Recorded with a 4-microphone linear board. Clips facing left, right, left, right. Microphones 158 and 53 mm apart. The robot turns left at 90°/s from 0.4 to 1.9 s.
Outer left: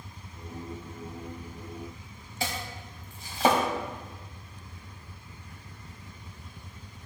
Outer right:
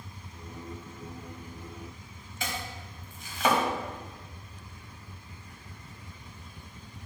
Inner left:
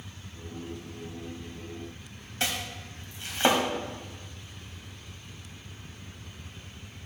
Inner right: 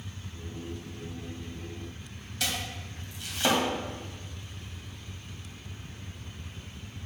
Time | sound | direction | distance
2.4 | chopping | 35° left (ahead or behind) | 1.3 m